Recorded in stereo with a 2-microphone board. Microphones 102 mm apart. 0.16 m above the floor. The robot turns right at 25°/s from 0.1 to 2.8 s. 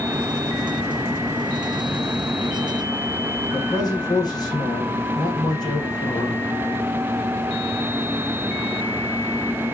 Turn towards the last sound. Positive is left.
turn(degrees=40)  # may be behind; listen again after turning